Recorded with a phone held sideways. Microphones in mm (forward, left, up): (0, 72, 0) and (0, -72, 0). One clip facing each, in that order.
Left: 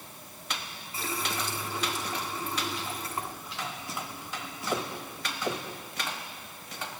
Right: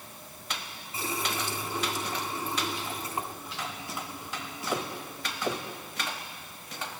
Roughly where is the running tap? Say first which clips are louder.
Right 1 dB; right.